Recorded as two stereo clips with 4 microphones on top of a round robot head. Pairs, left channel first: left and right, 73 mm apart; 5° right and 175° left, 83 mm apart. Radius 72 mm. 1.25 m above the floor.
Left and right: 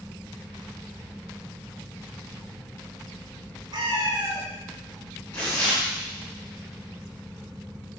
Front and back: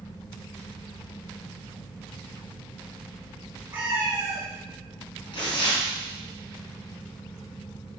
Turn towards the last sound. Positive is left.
turn(degrees=15)